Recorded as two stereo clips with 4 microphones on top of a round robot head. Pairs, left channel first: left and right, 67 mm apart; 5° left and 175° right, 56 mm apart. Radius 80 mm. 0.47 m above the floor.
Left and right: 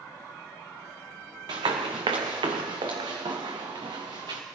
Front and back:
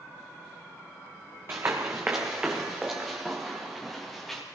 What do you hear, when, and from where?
1.5 s running footsteps: 115° right, 1.5 m; by 4.4 s 85° right, 2.5 m